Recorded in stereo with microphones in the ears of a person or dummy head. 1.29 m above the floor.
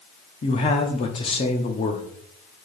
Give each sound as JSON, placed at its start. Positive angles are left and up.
{"t": 0.4, "sound": "a man speaking", "side_deg": 30, "distance_m": 0.7}